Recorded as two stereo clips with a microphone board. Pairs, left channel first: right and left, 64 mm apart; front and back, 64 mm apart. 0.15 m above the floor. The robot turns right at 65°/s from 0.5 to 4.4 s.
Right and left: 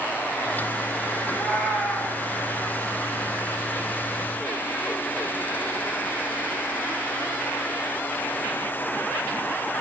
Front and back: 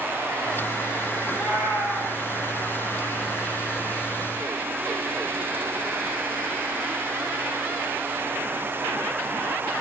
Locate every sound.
1.2 s a cat meowing: 155° left, 1.3 m; by 2.1 s 145° right, 1.3 m